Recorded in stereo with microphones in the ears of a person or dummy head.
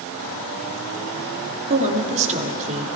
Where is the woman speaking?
40° right (ahead or behind), 2.5 m.